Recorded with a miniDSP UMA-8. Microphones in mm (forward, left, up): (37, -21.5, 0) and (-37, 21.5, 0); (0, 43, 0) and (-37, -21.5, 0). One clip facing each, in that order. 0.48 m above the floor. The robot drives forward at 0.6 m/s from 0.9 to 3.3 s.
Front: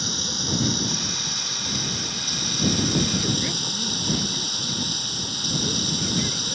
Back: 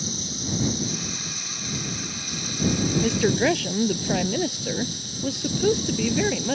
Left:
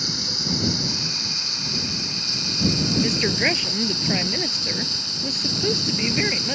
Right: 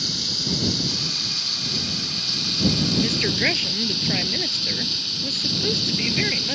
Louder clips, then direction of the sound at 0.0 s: Front 1 dB, left 1 dB; 10° right.